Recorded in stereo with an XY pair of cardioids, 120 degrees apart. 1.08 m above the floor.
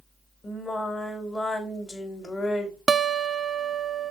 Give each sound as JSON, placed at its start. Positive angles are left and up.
{"t": 0.4, "sound": "singing", "azimuth_deg": 25, "distance_m": 2.5}
{"t": 2.9, "sound": "a guitar", "azimuth_deg": -30, "distance_m": 0.8}